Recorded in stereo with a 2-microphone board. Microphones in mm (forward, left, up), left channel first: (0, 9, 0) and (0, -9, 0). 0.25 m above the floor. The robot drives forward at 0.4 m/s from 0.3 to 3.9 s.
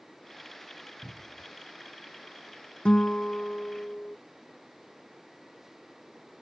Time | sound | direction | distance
1.0 | a cupboard door | 75° right (ahead or behind) | ?
2.9 | a guitar | 55° left (ahead or behind) | ?